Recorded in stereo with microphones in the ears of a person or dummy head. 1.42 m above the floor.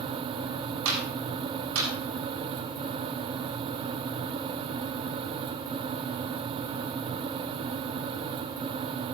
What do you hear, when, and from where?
0.8 s a clap: 80° right, 8 m